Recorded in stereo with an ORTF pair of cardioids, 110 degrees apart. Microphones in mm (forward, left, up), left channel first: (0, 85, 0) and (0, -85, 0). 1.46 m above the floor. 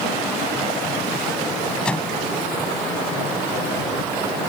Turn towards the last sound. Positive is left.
turn(degrees=5)